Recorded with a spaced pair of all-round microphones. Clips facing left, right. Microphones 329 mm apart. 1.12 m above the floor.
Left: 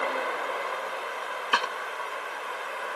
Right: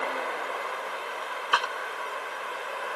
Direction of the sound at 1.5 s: 35° left (ahead or behind).